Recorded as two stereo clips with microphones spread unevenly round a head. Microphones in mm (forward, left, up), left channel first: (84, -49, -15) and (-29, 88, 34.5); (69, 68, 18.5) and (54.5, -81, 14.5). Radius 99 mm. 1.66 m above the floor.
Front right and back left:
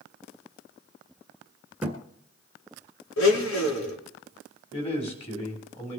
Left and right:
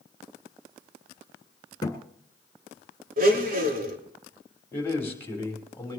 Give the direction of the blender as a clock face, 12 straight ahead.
2 o'clock.